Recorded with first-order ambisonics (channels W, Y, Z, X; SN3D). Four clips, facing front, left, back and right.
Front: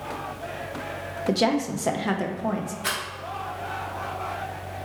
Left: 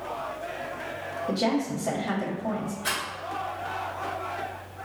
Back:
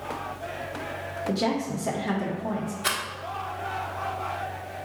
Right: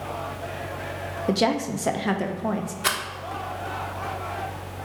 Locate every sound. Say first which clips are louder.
1.3 s a woman speaking: right 3 dB, front 4 dB; 55° right, 0.5 m
2.8 s a rattle: right 5 dB, back 1 dB; 100° right, 0.8 m